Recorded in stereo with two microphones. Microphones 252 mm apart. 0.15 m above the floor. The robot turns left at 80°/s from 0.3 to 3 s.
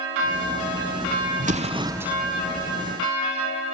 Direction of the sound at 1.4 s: 115° right.